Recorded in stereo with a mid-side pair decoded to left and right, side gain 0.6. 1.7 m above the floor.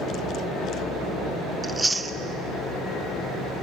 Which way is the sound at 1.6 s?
15° right.